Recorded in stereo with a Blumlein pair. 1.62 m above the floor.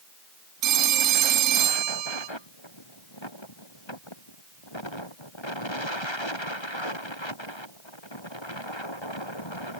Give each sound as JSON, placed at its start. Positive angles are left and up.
{"t": 0.6, "sound": "a phone ringing", "azimuth_deg": -35, "distance_m": 2.0}